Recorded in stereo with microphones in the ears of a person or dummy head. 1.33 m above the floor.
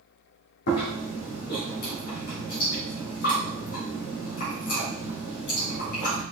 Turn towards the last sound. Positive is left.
turn(degrees=60)  # may be behind; listen again after turning